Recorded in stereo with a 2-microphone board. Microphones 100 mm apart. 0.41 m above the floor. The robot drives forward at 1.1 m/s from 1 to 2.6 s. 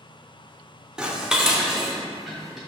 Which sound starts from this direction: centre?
Dishes clattering, at 1.0 s.